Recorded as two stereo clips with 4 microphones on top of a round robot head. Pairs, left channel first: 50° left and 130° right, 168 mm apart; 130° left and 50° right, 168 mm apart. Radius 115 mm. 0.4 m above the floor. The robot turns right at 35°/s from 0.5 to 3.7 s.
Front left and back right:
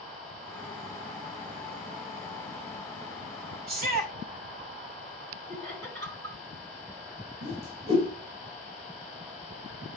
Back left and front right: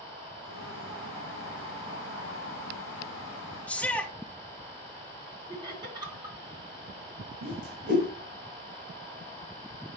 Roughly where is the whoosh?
Right.